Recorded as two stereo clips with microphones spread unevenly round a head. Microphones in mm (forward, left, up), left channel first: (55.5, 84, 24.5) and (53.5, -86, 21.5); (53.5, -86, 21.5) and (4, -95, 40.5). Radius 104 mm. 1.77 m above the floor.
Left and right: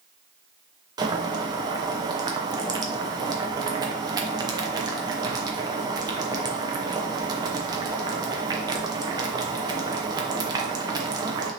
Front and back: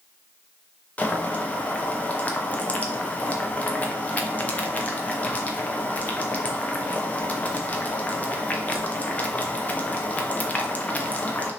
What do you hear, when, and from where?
1.0 s boiling: 60° right, 0.7 m